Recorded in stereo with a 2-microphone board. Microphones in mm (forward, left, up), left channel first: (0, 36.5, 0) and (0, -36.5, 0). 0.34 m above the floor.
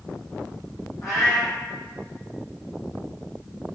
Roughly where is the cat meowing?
Left.